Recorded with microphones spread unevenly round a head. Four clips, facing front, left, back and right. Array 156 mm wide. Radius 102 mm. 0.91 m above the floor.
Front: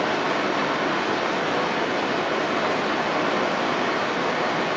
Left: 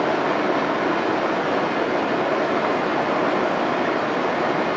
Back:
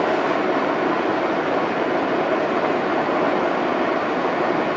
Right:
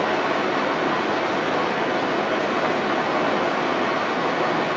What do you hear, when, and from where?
0.0 s running water: 160° left, 1.0 m